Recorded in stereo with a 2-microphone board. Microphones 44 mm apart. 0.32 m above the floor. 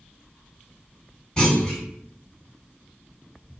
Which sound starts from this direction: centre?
A clunk, at 1.4 s.